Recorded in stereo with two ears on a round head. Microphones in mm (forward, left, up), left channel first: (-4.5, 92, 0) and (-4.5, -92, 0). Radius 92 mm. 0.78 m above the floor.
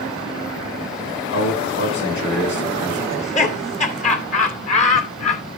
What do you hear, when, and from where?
1.3 s a man speaking: 60° left (ahead or behind), 9 m
3.1 s laughter: 35° left (ahead or behind), 2.5 m